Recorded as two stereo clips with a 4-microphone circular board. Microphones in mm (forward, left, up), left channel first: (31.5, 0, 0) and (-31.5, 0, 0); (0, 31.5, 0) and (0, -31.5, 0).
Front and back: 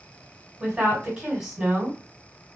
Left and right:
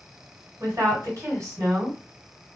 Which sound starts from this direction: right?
A woman speaking, at 0.6 s.